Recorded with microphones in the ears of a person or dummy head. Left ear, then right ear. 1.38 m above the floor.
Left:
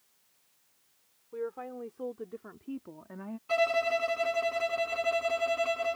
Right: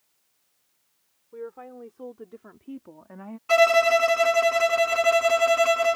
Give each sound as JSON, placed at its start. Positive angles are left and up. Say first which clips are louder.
{"t": 1.3, "sound": "a woman speaking", "louder": "left 1 dB", "side_deg": 5}
{"t": 3.5, "sound": "a violin", "louder": "right 10 dB", "side_deg": -55}